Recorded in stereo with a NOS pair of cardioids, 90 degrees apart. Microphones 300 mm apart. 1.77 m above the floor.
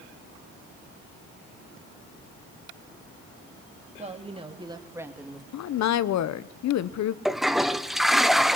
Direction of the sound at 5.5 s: 65° left.